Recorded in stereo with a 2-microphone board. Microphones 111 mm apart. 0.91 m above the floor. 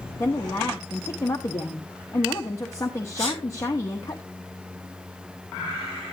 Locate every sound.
0.2 s a woman speaking: 30° left (ahead or behind), 1.1 m
3.2 s a sneeze: 35° right (ahead or behind), 6 m